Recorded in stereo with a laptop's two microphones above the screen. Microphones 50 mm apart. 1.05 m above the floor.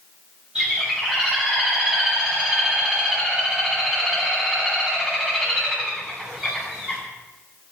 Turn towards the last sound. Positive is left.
turn(degrees=-15)  # may be behind; listen again after turning